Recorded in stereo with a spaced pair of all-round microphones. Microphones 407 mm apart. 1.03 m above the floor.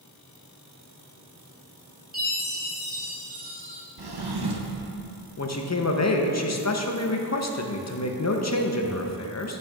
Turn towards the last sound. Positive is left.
turn(degrees=40)  # may be behind; listen again after turning